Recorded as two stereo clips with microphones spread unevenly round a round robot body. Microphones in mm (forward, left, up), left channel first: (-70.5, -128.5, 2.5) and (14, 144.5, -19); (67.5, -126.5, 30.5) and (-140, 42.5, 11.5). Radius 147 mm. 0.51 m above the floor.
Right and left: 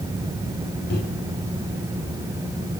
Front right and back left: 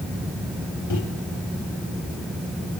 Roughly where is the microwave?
Ahead right.